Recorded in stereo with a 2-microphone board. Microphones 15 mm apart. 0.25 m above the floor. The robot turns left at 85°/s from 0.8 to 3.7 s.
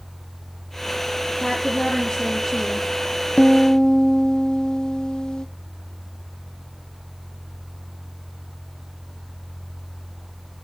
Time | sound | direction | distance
1.4 | a woman speaking | 115° left | 5 m
3.4 | a piano | 80° left | 1.4 m